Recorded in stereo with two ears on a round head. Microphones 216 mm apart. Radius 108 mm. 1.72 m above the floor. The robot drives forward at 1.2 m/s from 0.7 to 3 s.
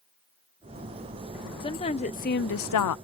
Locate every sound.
1.6 s a woman speaking: 20° left (ahead or behind); by 3.0 s 80° left